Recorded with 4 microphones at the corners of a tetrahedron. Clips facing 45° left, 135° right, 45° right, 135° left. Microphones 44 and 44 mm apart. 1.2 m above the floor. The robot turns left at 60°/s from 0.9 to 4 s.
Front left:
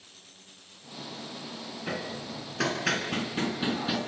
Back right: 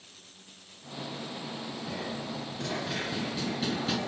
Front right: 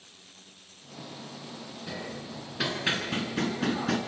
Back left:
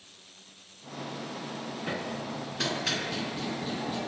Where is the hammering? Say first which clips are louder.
Front left 3 dB, back left 3 dB; 80° left, 4 m; by 4.0 s 45° right, 4 m.